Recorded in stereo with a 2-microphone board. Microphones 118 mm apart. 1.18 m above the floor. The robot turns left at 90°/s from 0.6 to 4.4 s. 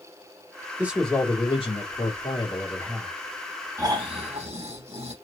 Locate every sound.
0.8 s a man speaking: 160° right, 2.5 m; by 3.1 s 10° right, 2.5 m
3.8 s snoring: 30° right, 3 m; by 5.1 s 85° right, 3 m